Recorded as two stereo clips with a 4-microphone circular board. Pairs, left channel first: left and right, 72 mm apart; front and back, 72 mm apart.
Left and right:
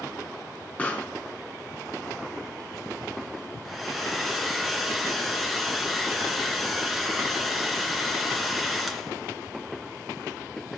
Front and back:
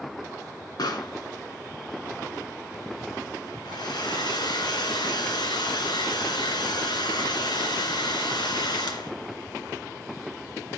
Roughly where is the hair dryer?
Ahead.